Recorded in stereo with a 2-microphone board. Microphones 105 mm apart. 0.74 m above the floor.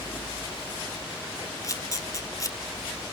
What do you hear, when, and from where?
1.6 s a camera shutter: 35° left (ahead or behind), 1.6 m